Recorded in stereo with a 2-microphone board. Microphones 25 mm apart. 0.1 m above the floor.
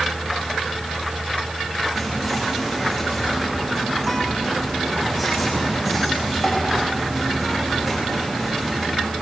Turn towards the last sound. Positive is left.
turn(degrees=-10)  # may be behind; listen again after turning